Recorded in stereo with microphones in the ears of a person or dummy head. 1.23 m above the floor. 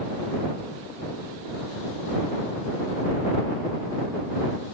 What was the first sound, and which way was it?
Only background noise.